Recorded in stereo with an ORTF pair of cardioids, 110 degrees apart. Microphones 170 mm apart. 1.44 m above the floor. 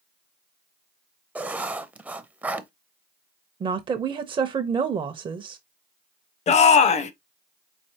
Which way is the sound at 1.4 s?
10° right.